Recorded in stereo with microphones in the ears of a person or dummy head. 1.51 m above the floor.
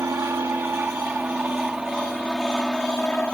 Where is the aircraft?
15° right (ahead or behind); by 3.3 s 5° left (ahead or behind).